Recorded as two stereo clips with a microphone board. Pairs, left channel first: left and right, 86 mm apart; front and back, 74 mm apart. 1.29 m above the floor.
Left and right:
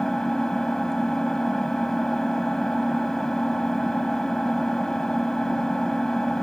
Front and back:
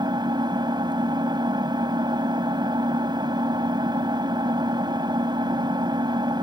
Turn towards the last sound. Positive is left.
turn(degrees=175)